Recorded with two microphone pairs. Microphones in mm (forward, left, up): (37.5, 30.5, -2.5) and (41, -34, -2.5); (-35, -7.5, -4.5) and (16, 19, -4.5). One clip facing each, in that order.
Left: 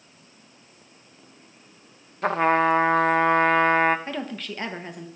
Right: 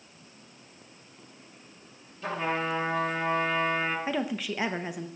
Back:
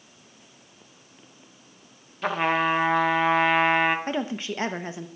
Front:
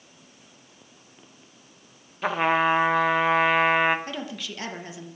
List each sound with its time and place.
2.2 s a trumpet: 110° left, 0.5 m
4.1 s a woman speaking: 160° right, 0.7 m